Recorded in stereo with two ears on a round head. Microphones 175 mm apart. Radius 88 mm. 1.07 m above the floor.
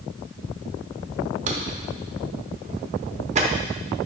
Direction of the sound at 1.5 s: 35° right (ahead or behind).